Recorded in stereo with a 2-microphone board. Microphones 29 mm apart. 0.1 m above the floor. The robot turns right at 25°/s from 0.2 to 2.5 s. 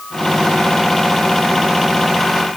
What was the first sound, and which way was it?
Only background noise.